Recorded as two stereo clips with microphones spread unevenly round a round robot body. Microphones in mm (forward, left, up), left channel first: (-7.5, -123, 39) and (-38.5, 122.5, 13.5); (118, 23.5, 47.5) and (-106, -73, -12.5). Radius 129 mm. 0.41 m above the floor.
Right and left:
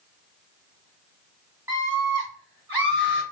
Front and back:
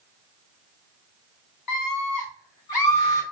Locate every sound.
1.7 s a scream: 20° left, 3 m